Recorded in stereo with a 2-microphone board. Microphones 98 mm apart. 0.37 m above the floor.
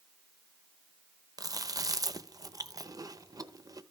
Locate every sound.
1.4 s chewing: 40° right (ahead or behind), 0.7 m